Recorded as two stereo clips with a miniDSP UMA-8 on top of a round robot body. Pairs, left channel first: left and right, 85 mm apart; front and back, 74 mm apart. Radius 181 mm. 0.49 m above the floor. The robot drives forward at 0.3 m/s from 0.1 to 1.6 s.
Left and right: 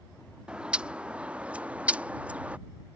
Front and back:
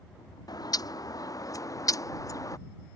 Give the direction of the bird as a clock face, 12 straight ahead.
12 o'clock.